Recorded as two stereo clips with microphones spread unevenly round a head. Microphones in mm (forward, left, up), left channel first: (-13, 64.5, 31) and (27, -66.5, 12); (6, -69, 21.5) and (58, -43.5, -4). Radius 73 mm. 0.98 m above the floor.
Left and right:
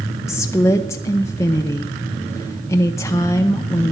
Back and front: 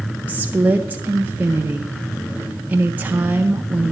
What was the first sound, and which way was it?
A woman speaking, 35° left.